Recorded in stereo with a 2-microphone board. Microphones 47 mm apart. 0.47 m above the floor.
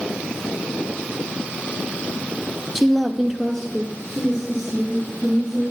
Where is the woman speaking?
5° right (ahead or behind), 0.8 m; by 5.7 s 5° left (ahead or behind), 3.5 m.